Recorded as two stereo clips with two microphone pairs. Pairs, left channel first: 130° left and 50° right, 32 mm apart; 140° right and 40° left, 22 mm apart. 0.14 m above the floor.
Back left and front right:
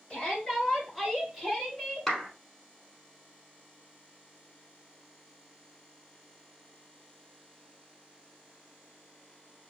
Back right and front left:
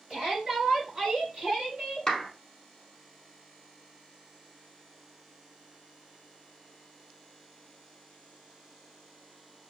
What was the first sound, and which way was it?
A shout, 75° left.